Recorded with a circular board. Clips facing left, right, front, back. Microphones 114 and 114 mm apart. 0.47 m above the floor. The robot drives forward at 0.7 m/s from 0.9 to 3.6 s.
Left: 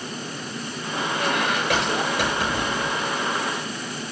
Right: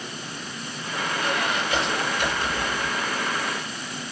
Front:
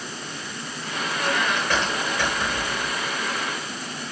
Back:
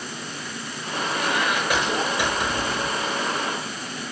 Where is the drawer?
I don't hear a drawer.